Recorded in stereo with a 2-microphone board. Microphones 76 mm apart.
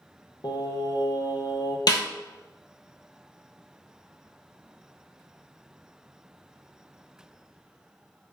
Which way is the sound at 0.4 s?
70° left (ahead or behind).